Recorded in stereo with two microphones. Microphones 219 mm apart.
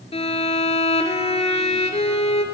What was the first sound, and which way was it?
A violin, 30° left (ahead or behind).